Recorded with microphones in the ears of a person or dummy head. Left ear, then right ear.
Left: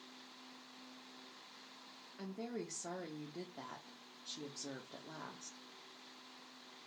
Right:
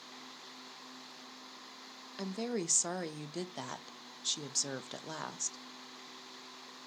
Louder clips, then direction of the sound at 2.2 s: Right 8 dB; 85° right.